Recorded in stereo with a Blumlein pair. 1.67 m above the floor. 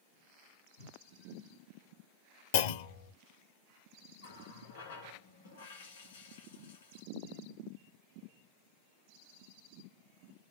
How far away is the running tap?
About 2 m.